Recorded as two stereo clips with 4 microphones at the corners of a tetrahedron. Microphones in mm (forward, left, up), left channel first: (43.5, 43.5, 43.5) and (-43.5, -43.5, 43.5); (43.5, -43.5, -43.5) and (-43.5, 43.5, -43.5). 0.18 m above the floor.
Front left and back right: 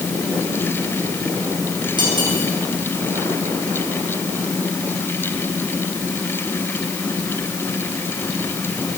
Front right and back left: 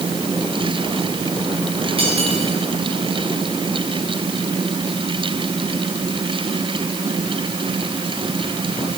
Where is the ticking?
I don't hear ticking.